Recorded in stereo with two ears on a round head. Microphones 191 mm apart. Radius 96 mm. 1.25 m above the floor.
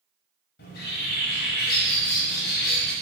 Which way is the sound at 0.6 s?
50° left (ahead or behind).